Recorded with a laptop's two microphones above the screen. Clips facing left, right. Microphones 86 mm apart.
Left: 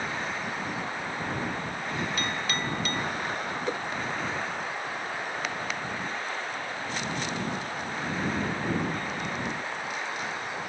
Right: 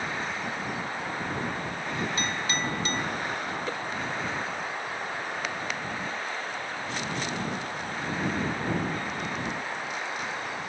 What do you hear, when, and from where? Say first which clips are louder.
2.2 s a clink: right 1 dB; 25° right (ahead or behind)
3.7 s a whoosh: left 2 dB; 20° left (ahead or behind)